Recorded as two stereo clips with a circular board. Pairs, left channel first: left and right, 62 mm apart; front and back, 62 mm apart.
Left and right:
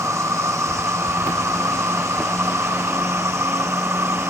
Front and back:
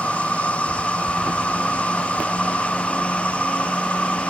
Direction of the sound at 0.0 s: 65° right.